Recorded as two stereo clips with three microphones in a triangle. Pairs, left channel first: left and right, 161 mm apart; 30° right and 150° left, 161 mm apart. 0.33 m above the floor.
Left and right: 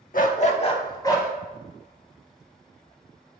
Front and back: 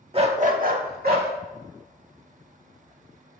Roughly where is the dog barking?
Left.